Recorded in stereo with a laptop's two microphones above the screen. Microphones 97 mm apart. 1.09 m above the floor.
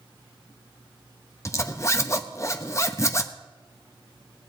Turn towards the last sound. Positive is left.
turn(degrees=30)  # may be behind; listen again after turning